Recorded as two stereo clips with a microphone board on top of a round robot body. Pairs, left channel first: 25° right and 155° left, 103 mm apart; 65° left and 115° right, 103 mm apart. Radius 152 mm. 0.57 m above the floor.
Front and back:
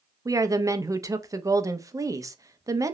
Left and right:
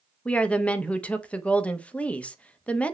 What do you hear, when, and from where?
0.2 s a woman speaking: 135° left, 1.0 m